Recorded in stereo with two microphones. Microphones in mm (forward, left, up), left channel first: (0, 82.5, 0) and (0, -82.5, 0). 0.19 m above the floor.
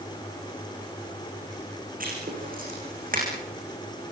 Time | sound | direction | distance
2.0 | writing | 60° right (ahead or behind) | 10 m